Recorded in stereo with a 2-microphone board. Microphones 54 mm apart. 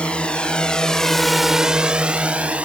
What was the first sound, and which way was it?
A drone, 20° left (ahead or behind).